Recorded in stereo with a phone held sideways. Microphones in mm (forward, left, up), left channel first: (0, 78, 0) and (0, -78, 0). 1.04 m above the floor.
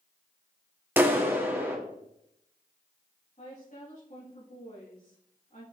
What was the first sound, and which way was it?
A clap, 15° right (ahead or behind).